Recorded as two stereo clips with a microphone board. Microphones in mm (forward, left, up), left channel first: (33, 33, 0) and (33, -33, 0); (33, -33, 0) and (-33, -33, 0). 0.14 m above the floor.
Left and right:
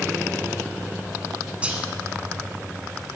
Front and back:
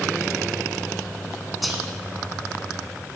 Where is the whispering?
90° right, 1.1 m.